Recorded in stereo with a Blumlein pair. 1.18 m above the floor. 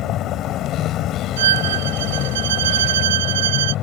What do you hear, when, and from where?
0.0 s a vehicle: 35° left
1.4 s a violin: 60° right